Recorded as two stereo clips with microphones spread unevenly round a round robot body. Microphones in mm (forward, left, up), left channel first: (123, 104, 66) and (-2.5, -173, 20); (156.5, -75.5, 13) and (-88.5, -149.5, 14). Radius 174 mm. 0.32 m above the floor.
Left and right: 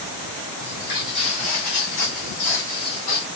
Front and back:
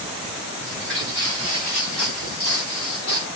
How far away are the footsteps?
About 1.2 m.